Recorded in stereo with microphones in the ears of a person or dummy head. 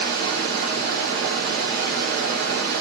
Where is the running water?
50° right (ahead or behind), 0.9 m.